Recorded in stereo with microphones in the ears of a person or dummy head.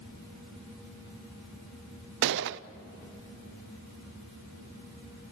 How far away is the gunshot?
About 0.5 m.